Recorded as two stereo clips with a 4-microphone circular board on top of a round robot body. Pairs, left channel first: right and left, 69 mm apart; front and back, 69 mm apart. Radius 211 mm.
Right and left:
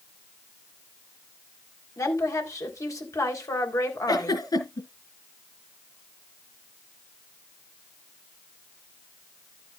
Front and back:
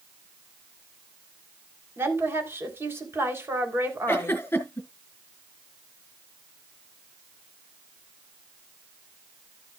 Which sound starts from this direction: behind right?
A woman speaking, at 2.0 s.